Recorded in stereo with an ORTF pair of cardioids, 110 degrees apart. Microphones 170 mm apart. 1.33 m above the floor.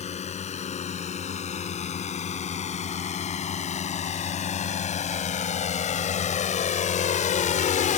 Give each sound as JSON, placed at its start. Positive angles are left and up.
{"t": 0.0, "sound": "a drone", "azimuth_deg": 40}